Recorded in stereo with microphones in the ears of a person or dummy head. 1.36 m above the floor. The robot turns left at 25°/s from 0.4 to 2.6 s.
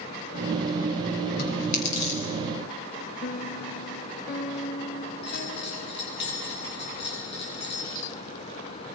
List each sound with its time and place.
1.4 s chewing: 55° left (ahead or behind), 6.5 m; by 2.2 s 35° left (ahead or behind), 6.5 m
3.2 s a piano: 50° left (ahead or behind), 1.1 m
5.2 s a bell: 65° left (ahead or behind), 8.5 m